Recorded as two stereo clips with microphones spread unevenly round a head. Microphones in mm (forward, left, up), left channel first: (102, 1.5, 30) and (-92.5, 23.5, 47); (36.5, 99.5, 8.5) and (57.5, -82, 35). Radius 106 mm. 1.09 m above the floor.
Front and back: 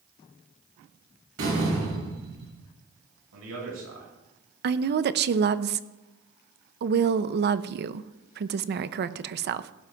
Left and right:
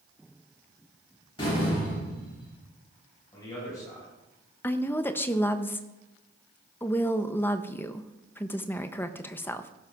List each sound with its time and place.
1.4 s a door slam: 160° left, 7.5 m
3.3 s a man speaking: 170° left, 6.5 m
4.6 s a woman speaking: 165° left, 0.6 m